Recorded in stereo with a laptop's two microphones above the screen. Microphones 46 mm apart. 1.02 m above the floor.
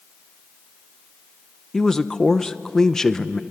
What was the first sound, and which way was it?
A man speaking, 10° left (ahead or behind).